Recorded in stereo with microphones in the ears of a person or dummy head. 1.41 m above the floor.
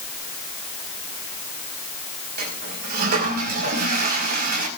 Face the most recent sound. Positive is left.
turn(degrees=-55)  # may be behind; listen again after turning